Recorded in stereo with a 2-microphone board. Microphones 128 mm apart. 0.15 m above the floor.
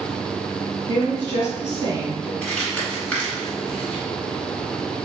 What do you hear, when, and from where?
0.9 s a woman speaking: 35° right (ahead or behind), 1.8 m
2.4 s crumpling: 10° left (ahead or behind), 1.6 m